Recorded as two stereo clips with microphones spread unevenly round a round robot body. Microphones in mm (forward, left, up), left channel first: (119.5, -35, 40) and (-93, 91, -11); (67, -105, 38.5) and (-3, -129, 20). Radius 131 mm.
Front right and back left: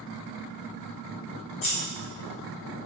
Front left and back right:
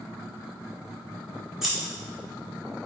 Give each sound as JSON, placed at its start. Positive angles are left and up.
{"t": 1.6, "sound": "scissors", "azimuth_deg": -75, "distance_m": 1.4}